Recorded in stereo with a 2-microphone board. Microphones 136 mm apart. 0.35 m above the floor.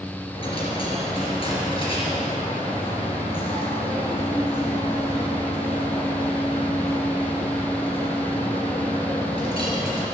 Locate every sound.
0.3 s a dropped coin: 45° left (ahead or behind), 3 m